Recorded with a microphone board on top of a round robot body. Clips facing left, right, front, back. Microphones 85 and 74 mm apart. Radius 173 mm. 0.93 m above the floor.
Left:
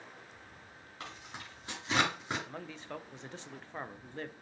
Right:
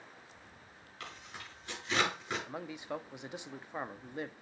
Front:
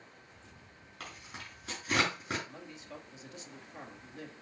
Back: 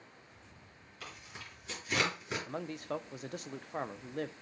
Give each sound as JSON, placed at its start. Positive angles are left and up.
{"t": 1.0, "sound": "tearing paper", "azimuth_deg": 30, "distance_m": 4.5}
{"t": 2.5, "sound": "a man speaking", "azimuth_deg": -165, "distance_m": 0.6}